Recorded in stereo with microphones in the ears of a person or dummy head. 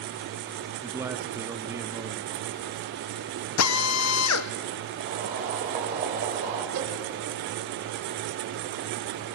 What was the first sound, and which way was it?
A man speaking, 15° right (ahead or behind).